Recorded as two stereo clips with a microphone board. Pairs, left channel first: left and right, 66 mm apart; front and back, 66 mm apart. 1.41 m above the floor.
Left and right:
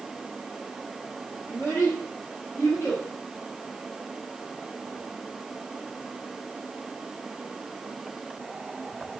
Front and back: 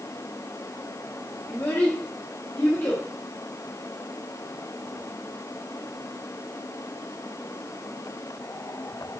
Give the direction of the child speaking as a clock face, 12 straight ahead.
11 o'clock.